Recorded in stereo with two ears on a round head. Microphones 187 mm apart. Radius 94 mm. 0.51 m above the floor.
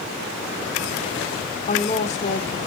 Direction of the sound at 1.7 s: 35° left (ahead or behind).